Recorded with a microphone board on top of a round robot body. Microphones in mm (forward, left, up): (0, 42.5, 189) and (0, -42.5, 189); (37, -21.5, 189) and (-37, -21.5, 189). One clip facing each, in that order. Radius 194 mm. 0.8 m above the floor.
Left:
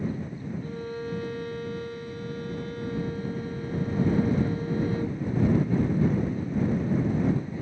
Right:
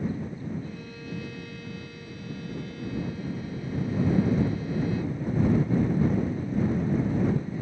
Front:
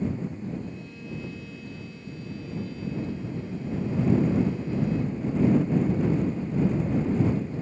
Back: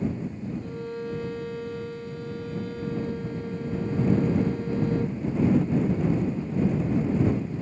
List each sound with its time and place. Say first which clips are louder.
0.6 s a violin: left 6 dB, back 6 dB; 140° left